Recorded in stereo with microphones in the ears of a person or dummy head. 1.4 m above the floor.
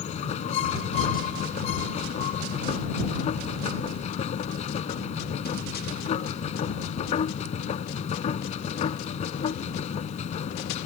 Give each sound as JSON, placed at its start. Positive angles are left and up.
{"t": 0.0, "sound": "a machine running", "side_deg": 35}